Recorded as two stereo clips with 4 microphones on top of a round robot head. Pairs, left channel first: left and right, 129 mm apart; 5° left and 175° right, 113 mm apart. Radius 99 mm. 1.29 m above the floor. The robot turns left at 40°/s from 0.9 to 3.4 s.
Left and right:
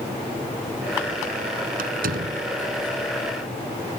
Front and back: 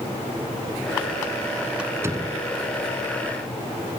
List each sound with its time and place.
1.8 s a door slam: 90° right; by 2.4 s 115° right